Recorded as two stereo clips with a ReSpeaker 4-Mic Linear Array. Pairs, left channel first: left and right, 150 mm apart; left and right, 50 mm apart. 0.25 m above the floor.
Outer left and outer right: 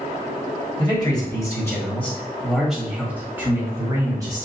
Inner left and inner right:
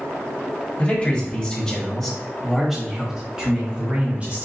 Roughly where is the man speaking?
Left.